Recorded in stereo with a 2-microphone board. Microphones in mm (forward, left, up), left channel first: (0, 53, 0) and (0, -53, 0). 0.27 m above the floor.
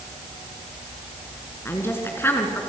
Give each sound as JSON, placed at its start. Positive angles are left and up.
{"t": 1.6, "sound": "a woman speaking", "side_deg": 20, "distance_m": 3.0}